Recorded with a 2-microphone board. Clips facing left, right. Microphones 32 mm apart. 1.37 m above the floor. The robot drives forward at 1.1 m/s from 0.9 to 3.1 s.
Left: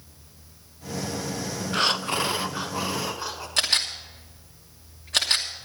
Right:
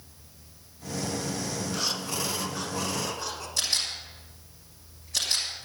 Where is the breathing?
55° left (ahead or behind), 0.5 m; by 3.5 s 15° left (ahead or behind), 1.4 m.